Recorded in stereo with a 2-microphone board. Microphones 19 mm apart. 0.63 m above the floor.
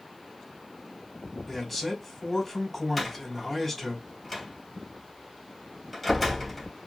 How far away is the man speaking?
About 2.0 m.